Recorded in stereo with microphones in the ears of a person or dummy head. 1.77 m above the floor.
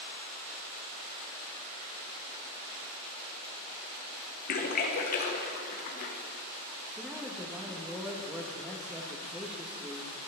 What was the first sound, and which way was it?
A splash, 40° left (ahead or behind).